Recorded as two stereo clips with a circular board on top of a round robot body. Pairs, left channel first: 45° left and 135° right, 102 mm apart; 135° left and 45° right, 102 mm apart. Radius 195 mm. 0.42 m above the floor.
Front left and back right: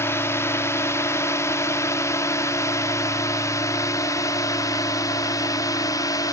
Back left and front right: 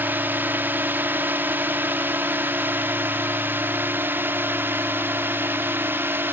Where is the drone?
10° left; by 6.3 s 15° left.